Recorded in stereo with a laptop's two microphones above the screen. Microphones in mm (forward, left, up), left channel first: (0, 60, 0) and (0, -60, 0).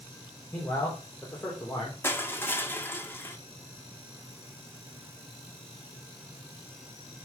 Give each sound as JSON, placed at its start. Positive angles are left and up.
{"t": 0.5, "sound": "a man speaking", "side_deg": 15, "distance_m": 4.0}
{"t": 2.0, "sound": "crushing", "side_deg": 20, "distance_m": 1.5}